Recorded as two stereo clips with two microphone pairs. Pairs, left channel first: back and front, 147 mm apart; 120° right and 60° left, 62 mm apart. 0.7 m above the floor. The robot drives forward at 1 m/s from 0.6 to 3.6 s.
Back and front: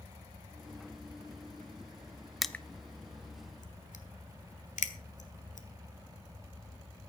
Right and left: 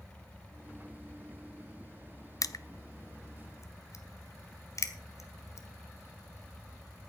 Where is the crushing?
95° right, 0.7 m; by 5.7 s 155° right, 1.4 m.